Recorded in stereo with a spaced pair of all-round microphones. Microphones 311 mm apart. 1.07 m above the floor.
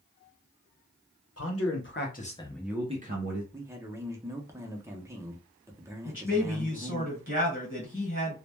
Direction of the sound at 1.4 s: 50° left (ahead or behind).